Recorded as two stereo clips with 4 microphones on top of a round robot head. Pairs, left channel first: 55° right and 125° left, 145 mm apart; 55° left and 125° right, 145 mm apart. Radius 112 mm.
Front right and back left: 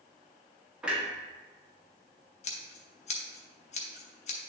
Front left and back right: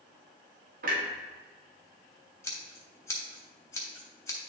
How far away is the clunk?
About 0.8 m.